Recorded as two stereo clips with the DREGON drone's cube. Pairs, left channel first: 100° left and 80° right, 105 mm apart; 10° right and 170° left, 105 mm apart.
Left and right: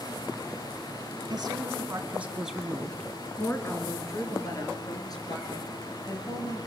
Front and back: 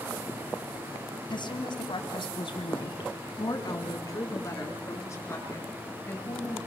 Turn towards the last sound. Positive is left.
turn(degrees=60)